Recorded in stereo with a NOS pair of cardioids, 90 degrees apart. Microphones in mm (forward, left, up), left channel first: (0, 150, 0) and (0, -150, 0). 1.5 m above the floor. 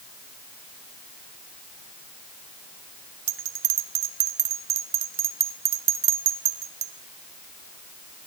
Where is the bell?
50° right, 0.8 m.